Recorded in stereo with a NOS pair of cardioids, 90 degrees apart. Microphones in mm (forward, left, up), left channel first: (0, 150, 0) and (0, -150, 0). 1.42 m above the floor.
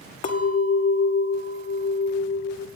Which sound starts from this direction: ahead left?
A clink, at 0.2 s.